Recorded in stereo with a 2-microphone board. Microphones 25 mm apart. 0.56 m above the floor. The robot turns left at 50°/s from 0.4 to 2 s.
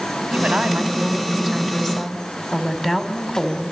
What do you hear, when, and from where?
0.3 s a woman speaking: 120° right, 3.5 m; by 3.7 s 160° left, 3.5 m